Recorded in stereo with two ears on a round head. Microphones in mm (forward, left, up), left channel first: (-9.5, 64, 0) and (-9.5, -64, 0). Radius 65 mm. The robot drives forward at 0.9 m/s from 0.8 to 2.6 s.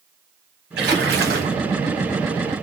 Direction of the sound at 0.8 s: 80° right.